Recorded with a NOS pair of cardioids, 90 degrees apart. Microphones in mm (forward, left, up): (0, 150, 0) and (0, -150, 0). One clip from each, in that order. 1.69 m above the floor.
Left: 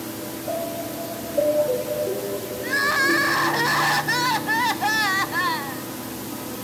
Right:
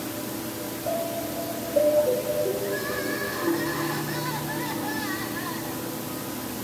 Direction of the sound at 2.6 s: 65° left.